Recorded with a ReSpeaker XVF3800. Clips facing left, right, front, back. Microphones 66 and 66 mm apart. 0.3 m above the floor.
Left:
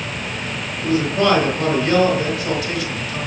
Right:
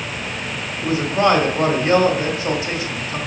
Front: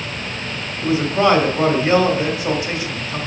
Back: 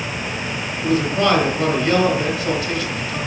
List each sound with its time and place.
0.8 s a man speaking: 50° right, 1.6 m